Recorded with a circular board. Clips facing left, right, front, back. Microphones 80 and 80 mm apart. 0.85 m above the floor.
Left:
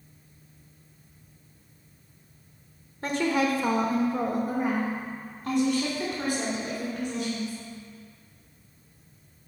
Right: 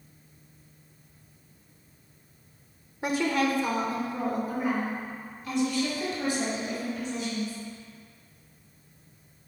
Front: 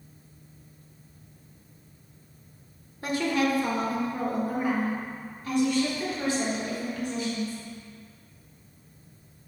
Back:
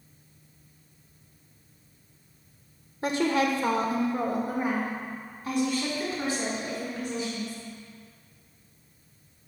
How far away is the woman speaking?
About 0.5 m.